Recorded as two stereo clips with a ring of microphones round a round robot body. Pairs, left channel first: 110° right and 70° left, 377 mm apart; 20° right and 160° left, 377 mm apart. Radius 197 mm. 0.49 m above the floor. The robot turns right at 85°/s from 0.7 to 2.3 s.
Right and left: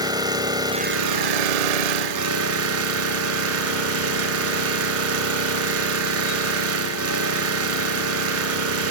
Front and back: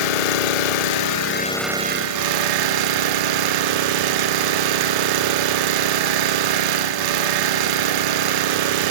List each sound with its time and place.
0.0 s an engine running: 15° right, 0.8 m; by 8.9 s 125° left, 0.8 m